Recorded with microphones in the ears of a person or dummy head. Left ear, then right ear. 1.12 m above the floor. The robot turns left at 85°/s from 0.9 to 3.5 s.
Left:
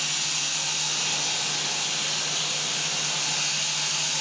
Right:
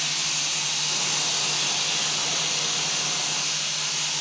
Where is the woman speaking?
I don't hear a woman speaking.